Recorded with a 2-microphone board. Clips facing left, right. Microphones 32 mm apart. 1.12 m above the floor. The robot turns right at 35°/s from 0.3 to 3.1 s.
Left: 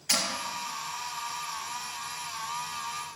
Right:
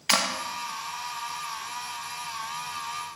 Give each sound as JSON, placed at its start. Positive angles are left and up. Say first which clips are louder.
{"t": 0.1, "sound": "a clap", "louder": "right 5 dB", "side_deg": -80, "distance_m": 0.9}